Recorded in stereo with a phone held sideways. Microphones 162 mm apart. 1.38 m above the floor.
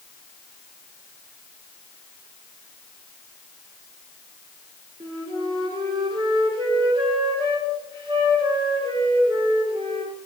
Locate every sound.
5.0 s a flute: 30° right (ahead or behind), 1.5 m